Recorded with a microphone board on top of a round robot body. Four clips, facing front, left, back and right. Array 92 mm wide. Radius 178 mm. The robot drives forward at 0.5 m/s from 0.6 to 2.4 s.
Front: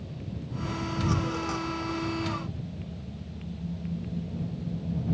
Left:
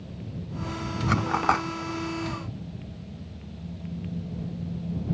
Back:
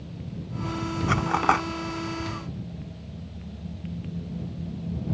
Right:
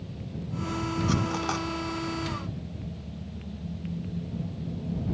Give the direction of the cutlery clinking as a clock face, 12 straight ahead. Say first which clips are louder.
Left 9 dB, back 11 dB; 7 o'clock.